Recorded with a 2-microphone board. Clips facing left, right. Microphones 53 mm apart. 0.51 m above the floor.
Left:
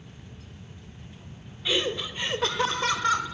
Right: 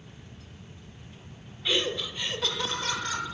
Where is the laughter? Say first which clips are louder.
Left 1 dB; centre (ahead or behind), 1.1 m; by 3.2 s 55° left (ahead or behind), 2 m.